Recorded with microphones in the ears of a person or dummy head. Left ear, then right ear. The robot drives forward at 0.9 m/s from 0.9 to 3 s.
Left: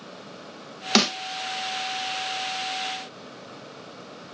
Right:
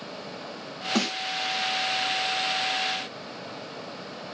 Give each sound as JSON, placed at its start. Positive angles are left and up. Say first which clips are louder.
{"t": 0.9, "sound": "a snare drum", "louder": "left 7 dB", "side_deg": 75, "distance_m": 0.8}